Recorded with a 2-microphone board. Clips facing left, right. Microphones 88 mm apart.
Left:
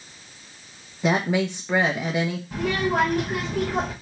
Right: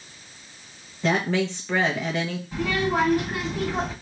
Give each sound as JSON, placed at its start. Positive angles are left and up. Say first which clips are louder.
{"t": 1.0, "sound": "a woman speaking", "louder": "left 1 dB", "side_deg": 15, "distance_m": 0.7}
{"t": 2.5, "sound": "a child speaking", "louder": "even", "side_deg": 60, "distance_m": 2.0}